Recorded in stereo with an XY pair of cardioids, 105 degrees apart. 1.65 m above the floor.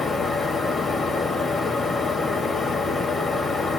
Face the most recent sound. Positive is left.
turn(degrees=35)